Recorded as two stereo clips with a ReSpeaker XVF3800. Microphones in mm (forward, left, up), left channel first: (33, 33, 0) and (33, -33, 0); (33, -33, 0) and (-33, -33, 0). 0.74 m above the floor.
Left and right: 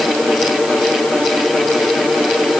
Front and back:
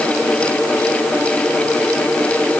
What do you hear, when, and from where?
Only background noise.